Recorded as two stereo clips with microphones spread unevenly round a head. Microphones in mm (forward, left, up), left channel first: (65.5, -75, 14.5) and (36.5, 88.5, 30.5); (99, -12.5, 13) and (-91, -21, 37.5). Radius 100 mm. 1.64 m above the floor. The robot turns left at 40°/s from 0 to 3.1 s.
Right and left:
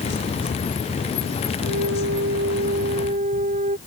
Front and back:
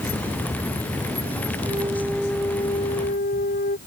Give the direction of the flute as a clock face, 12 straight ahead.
8 o'clock.